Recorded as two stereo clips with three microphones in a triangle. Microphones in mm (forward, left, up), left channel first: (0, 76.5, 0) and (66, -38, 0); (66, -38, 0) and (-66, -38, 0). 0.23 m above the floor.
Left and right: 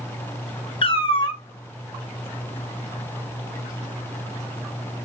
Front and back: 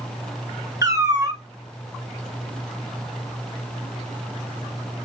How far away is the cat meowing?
About 0.5 m.